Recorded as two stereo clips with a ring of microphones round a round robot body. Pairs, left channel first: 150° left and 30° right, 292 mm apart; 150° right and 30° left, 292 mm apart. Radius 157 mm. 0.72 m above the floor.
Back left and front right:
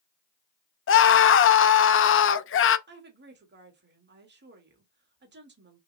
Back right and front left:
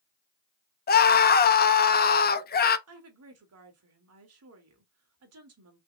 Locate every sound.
0.9 s a scream: 170° left, 0.7 m
2.9 s a woman speaking: 15° left, 1.7 m